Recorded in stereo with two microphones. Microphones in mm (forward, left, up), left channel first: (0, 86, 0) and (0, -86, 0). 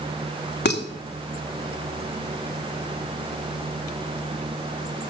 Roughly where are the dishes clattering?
Left.